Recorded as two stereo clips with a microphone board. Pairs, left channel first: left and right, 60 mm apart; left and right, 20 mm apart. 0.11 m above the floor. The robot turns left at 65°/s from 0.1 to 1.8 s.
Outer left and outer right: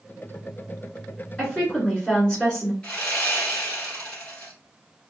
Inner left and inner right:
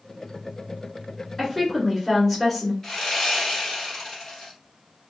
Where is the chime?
No chime in this recording.